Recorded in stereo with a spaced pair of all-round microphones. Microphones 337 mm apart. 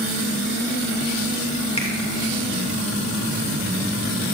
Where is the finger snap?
20° left (ahead or behind), 2.5 m.